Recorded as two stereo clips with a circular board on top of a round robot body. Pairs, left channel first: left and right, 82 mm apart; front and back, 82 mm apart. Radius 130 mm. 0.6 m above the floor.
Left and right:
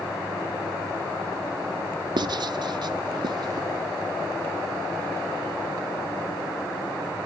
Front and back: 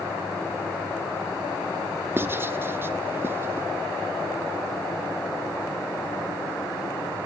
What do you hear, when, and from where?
2.2 s writing: 115° right, 0.9 m